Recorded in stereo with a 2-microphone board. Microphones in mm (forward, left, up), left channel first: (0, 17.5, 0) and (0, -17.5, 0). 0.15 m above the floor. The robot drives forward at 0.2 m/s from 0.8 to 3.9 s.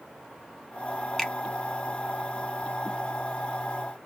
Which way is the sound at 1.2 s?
10° left (ahead or behind).